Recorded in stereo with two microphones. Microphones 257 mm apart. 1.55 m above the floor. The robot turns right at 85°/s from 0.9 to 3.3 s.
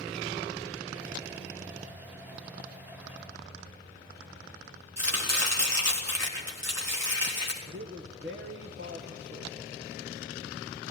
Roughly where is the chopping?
Right.